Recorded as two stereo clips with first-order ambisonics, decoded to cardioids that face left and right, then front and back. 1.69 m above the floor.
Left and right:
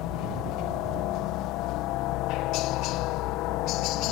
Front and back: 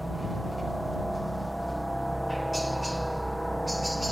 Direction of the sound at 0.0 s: 90° left.